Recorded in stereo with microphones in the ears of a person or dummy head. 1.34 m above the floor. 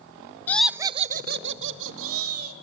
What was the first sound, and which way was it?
Laughter, 15° left (ahead or behind).